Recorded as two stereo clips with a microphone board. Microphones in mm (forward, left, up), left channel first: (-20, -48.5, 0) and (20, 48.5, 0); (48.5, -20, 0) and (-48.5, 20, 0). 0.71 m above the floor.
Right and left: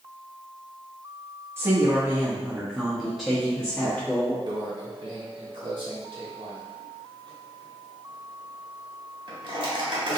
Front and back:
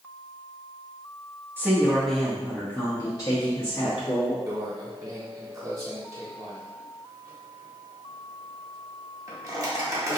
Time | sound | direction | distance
1.6 | a woman speaking | 110° left | 0.8 m
4.5 | a microwave | 100° left | 1.0 m